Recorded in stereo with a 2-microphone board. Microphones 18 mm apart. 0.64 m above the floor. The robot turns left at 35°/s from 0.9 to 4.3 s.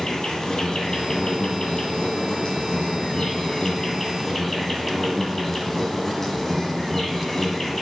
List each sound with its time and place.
0.0 s an insect: 135° left, 1.6 m; by 7.8 s 15° left, 1.6 m